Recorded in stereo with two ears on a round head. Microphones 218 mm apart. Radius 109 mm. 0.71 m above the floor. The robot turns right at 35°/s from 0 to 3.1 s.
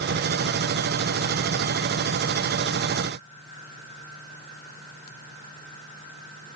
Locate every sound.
Only background noise.